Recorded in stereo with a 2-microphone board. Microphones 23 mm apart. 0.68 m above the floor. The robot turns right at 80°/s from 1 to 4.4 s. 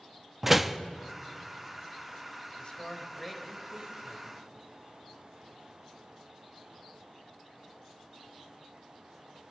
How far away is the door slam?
About 0.7 m.